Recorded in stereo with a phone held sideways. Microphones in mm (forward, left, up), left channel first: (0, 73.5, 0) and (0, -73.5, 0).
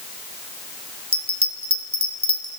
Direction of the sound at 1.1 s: 45° right (ahead or behind).